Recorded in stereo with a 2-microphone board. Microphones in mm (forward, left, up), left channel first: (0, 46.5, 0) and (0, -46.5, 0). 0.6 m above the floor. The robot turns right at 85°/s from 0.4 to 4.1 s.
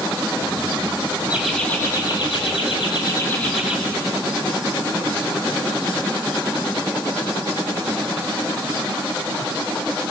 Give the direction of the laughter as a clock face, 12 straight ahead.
1 o'clock.